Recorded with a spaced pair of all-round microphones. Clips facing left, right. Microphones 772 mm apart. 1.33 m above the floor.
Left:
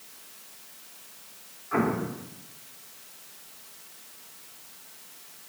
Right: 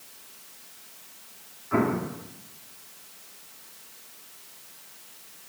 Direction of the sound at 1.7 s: 60° right (ahead or behind).